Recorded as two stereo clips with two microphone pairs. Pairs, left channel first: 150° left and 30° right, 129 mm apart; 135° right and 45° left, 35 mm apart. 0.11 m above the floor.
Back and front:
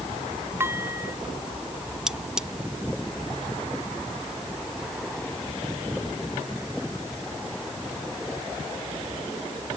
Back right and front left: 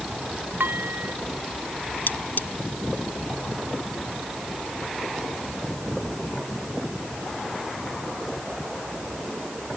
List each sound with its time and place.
0.6 s dishes clattering: 40° left
2.1 s cutlery clinking: 115° right